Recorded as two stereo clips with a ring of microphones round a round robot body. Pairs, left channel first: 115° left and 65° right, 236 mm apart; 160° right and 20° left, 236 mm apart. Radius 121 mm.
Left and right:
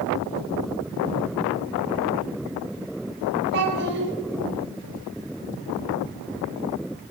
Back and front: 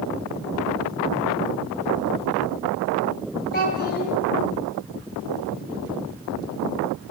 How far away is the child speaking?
About 1.8 m.